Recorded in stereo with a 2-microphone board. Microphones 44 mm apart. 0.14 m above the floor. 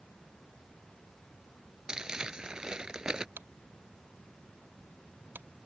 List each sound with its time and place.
1.9 s crumpling: 15° right (ahead or behind)
3.4 s tapping: 50° right (ahead or behind)